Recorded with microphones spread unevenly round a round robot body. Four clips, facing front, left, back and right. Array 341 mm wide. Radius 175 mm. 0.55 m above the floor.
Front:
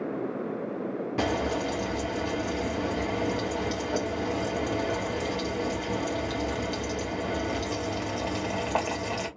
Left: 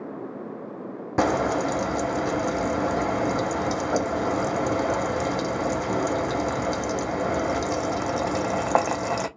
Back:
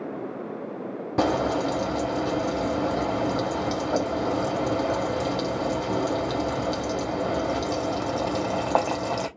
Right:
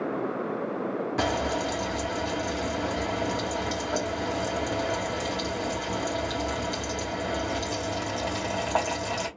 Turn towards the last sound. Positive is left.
turn(degrees=140)